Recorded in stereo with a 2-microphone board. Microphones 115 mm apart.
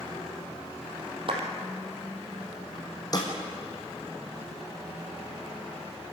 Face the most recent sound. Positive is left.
turn(degrees=35)  # may be behind; listen again after turning